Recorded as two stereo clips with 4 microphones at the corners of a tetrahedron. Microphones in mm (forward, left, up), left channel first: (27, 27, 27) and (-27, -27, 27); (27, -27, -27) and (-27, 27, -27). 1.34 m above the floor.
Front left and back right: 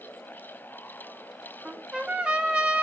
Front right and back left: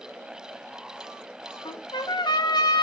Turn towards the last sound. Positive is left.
turn(degrees=-55)